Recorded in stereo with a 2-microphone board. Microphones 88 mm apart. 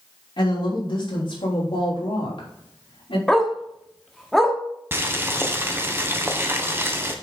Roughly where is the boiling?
Right.